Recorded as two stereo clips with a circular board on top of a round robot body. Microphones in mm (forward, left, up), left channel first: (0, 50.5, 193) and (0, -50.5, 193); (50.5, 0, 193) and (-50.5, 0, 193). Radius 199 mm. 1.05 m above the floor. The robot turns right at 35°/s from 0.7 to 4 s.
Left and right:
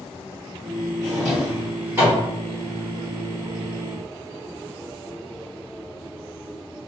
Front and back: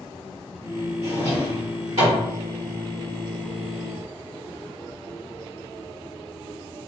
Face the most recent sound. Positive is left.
turn(degrees=-85)